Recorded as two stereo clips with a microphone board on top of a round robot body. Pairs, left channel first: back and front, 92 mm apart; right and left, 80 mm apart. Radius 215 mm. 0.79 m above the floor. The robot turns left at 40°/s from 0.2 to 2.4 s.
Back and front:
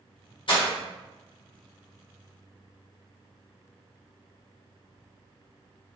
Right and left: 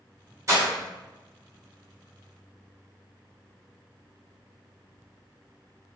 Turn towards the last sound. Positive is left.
turn(degrees=65)